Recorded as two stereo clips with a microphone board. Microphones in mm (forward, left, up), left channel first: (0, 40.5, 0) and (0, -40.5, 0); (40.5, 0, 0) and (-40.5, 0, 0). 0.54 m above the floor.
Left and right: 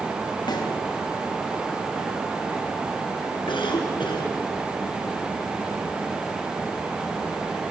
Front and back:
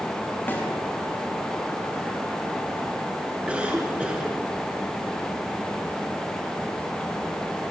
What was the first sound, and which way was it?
A snare drum, 65° left.